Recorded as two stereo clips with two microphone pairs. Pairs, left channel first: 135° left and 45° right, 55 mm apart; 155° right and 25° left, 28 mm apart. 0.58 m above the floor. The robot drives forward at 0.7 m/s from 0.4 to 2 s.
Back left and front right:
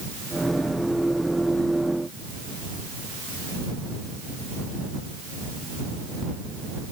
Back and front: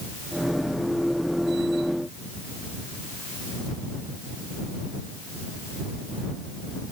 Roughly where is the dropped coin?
No dropped coin in this recording.